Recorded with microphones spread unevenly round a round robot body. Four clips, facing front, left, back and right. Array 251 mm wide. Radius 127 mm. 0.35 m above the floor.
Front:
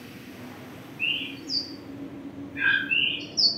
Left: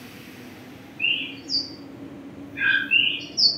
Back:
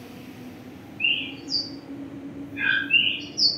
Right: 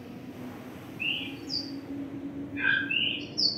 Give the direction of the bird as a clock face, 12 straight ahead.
2 o'clock.